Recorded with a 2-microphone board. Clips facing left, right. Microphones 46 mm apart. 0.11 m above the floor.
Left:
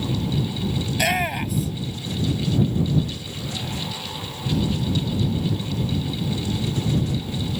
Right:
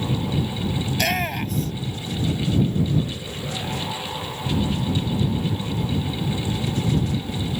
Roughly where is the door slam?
No door slam in this recording.